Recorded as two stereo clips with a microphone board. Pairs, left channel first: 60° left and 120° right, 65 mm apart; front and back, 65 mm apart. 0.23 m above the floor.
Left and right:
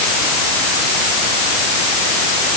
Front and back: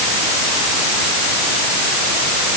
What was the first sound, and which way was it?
Only background noise.